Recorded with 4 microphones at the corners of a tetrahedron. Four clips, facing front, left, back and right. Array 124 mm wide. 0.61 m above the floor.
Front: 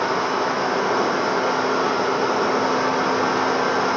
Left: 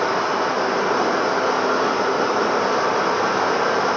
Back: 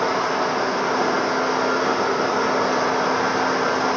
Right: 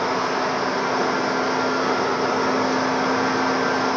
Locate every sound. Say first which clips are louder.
0.0 s running water: left 2 dB, even; 80° left, 1.9 m